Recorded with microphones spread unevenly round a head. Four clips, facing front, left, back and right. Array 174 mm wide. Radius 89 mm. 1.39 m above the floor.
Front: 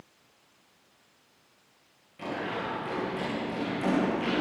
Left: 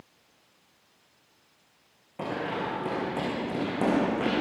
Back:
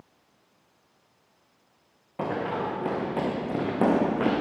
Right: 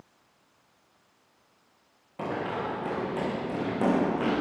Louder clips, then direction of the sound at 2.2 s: Even, back 5 dB; straight behind.